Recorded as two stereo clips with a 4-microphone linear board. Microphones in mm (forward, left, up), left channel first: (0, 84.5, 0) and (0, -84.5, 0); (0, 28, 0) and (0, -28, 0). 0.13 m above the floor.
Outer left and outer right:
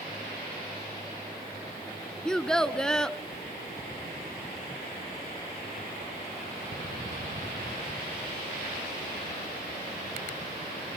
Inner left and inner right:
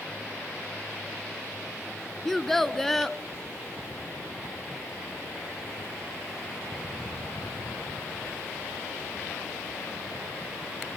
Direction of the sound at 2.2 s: 5° left (ahead or behind).